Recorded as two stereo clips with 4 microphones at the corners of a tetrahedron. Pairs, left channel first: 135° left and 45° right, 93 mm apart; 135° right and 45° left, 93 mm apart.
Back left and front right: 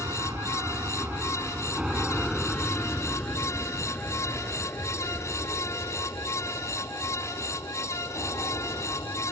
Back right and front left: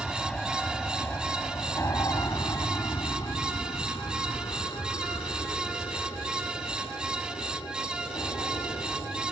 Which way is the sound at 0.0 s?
50° right.